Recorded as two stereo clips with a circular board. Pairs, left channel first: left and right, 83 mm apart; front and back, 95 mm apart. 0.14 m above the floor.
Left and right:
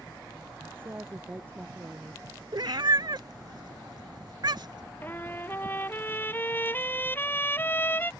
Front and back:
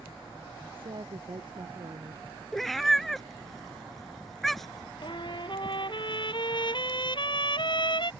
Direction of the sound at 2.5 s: 90° right.